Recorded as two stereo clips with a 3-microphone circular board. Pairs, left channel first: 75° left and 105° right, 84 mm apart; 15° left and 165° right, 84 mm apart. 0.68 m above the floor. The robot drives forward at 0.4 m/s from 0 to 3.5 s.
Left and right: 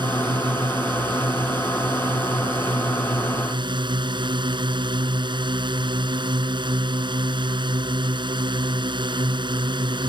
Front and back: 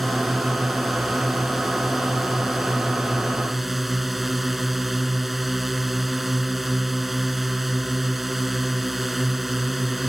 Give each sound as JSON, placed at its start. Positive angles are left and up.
{"t": 0.0, "sound": "a drone", "azimuth_deg": -75}